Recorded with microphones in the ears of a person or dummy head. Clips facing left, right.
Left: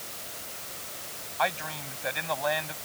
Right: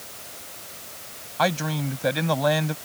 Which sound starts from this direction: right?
A man speaking, at 1.4 s.